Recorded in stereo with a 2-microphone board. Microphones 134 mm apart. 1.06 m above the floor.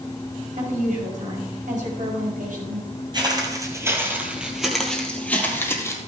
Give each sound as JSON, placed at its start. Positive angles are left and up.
{"t": 0.6, "sound": "a woman speaking", "side_deg": -80, "distance_m": 5.0}
{"t": 3.1, "sound": "footsteps", "side_deg": -35, "distance_m": 1.8}